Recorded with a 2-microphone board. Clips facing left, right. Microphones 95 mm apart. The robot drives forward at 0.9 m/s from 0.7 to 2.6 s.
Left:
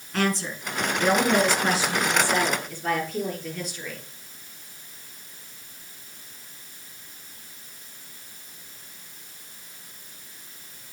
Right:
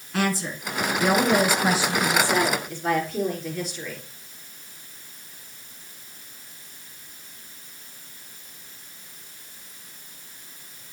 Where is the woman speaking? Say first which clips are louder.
Even; 5° right (ahead or behind), 1.6 m.